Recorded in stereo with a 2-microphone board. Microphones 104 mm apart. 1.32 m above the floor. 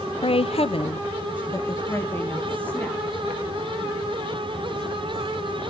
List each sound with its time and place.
0.2 s a woman speaking: 60° left (ahead or behind), 0.5 m; by 5.7 s 5° left (ahead or behind), 3.5 m